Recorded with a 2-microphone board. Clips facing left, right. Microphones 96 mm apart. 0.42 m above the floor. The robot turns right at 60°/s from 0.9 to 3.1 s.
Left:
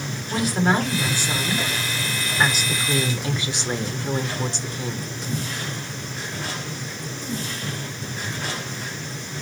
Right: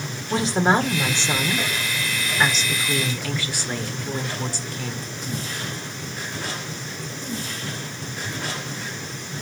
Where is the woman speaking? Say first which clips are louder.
Right 2 dB; 30° right (ahead or behind), 1.2 m; by 5.1 s 25° left (ahead or behind), 1.2 m.